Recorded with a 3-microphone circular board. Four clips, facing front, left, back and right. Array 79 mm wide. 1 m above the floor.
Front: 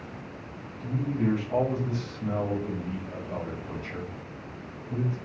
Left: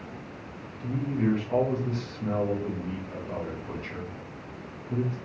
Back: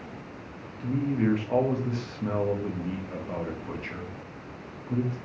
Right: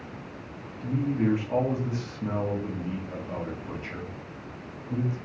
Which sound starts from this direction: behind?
A man speaking, at 0.8 s.